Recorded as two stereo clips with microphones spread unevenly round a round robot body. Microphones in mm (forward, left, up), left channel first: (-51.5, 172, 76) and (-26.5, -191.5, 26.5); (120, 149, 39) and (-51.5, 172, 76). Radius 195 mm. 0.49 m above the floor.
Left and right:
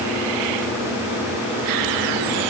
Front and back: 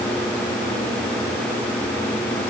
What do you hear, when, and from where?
Only background noise.